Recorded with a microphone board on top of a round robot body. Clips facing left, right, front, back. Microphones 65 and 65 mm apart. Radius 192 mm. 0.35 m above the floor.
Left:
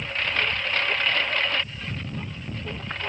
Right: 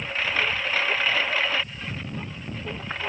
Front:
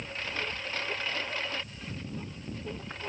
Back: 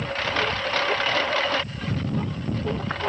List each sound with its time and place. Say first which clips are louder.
0.0 s a lawn mower: right 1 dB, back 11 dB; 175° right